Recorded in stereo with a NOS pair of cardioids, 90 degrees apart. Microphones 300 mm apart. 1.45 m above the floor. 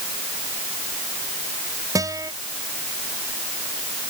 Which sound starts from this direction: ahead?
A guitar, at 1.9 s.